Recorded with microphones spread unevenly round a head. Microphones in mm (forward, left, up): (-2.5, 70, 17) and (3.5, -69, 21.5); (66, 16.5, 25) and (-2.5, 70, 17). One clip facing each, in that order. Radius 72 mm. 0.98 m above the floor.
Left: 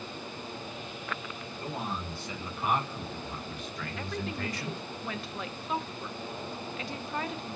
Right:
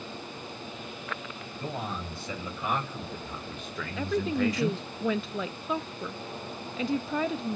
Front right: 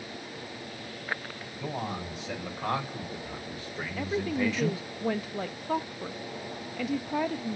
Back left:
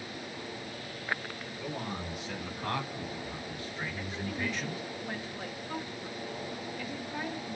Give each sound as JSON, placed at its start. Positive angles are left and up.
{"t": 1.6, "sound": "a man speaking", "azimuth_deg": -80, "distance_m": 5.0}
{"t": 4.0, "sound": "a woman speaking", "azimuth_deg": -80, "distance_m": 0.7}